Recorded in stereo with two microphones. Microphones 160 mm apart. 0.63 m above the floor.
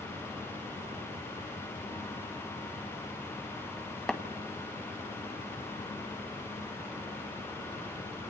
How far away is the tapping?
About 1.8 m.